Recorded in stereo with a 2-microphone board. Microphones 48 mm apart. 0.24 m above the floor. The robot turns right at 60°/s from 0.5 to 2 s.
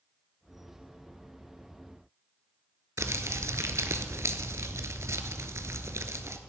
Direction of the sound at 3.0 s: 75° right (ahead or behind).